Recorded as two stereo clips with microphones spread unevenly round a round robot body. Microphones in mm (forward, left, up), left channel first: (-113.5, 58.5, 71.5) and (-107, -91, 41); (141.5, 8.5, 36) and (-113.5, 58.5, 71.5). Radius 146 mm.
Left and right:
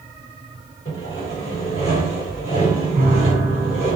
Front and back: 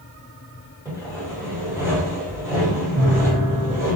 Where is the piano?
100° right, 0.6 m.